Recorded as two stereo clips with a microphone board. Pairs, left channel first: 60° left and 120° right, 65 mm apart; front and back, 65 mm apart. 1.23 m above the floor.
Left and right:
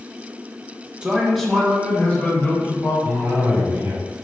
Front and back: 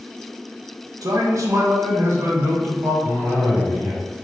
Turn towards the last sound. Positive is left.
turn(degrees=-170)